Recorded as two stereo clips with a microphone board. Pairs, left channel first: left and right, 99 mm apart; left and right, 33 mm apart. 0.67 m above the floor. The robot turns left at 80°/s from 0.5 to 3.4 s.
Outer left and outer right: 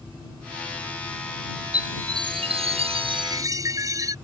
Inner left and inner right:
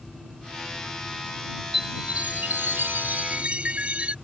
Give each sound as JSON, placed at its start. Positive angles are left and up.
{"t": 1.7, "sound": "a chime", "azimuth_deg": -10}